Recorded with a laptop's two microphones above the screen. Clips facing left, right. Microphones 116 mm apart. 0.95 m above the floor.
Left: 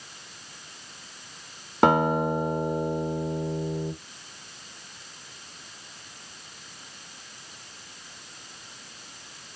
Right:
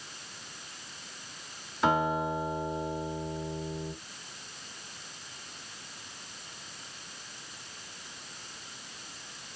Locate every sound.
1.8 s a guitar: 65° left (ahead or behind), 1.7 m